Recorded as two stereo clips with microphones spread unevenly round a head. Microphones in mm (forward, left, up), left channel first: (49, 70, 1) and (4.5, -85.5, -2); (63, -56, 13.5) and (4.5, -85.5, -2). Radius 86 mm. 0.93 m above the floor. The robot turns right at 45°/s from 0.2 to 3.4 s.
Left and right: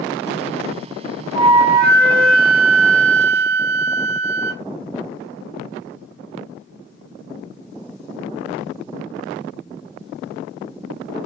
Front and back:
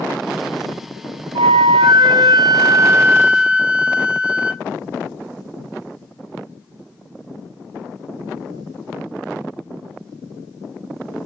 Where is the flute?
175° right, 0.6 m; by 4.6 s 80° right, 0.6 m.